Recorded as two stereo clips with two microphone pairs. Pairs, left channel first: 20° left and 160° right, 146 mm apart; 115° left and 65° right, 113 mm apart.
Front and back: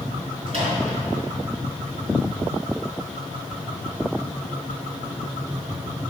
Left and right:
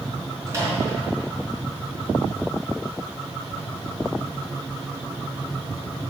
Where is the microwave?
125° right, 3.5 m.